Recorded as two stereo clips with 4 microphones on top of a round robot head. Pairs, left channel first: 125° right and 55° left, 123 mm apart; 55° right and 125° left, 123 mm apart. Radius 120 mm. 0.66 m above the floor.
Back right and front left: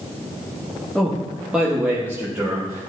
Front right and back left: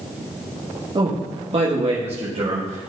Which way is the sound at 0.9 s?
150° left.